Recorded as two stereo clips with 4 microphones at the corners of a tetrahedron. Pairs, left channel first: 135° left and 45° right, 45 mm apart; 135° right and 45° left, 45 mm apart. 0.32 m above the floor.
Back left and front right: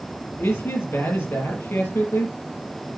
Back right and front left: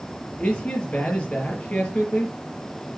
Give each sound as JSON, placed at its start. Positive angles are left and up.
{"t": 0.4, "sound": "a man speaking", "azimuth_deg": 165, "distance_m": 5.5}